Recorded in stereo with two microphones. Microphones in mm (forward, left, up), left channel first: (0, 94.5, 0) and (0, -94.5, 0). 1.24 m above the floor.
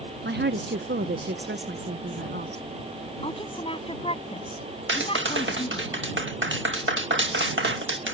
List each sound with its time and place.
0.2 s a woman speaking: 65° right (ahead or behind)
3.2 s a woman speaking: 30° left (ahead or behind)
4.9 s a clap: 85° right